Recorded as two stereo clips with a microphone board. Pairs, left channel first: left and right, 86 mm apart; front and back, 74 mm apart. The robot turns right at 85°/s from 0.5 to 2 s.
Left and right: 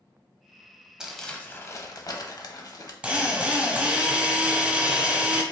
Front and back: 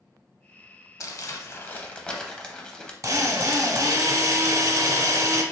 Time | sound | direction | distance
1.0 | crumpling | 10° right | 0.6 m
3.0 | a drill | 160° right | 0.8 m